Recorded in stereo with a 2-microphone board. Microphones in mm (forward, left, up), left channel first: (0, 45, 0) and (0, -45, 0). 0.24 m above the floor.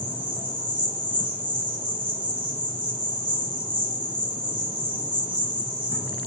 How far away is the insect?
About 0.9 m.